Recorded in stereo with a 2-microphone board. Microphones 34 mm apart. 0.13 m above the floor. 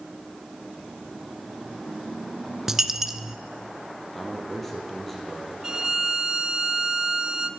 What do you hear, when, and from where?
2.7 s a dropped coin: 15° right (ahead or behind), 0.6 m
4.1 s a man speaking: 5° left (ahead or behind), 4 m
5.6 s a violin: 25° right (ahead or behind), 0.8 m